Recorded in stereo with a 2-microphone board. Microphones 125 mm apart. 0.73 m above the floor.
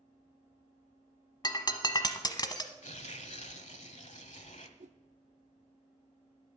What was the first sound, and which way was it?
Breaking glass, 35° left (ahead or behind).